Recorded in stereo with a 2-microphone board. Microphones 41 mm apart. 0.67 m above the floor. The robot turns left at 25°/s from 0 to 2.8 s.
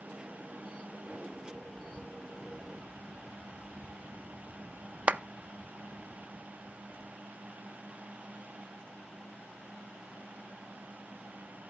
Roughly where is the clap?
Right.